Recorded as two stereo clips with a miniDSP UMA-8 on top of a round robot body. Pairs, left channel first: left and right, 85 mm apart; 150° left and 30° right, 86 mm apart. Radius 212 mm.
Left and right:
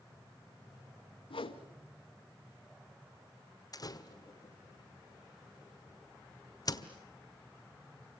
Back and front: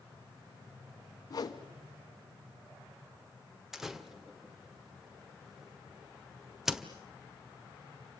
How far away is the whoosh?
About 1.5 m.